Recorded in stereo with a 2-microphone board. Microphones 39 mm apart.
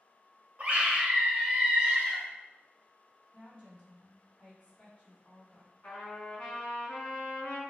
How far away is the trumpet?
About 2.5 m.